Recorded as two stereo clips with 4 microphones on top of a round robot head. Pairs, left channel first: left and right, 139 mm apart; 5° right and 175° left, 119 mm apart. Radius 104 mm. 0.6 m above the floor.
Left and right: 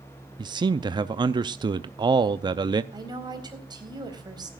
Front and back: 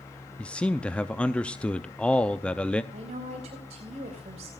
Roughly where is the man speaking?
Right.